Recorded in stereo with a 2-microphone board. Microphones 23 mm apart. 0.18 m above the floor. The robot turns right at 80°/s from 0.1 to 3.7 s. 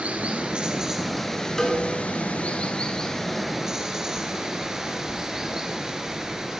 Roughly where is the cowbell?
Centre.